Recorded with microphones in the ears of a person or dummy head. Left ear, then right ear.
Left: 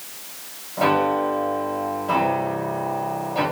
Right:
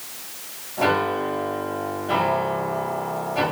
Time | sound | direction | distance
0.8 | a piano | 65° left (ahead or behind) | 2.0 m